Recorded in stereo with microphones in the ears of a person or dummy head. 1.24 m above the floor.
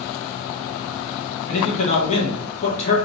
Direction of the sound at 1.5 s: 50° left (ahead or behind).